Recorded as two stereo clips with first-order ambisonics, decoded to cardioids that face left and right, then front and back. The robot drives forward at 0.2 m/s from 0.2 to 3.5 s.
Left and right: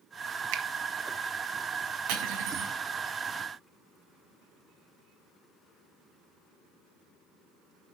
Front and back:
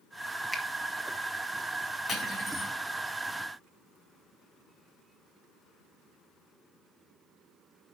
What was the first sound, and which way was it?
A finger snap, 95° right.